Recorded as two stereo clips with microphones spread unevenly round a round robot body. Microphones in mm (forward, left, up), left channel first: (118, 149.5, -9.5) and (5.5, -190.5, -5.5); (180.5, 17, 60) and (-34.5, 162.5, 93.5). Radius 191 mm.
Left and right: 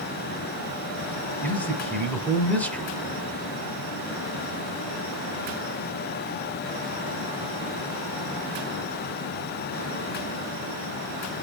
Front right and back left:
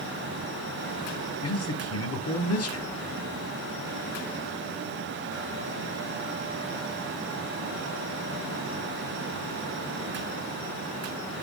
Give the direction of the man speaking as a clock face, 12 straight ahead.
12 o'clock.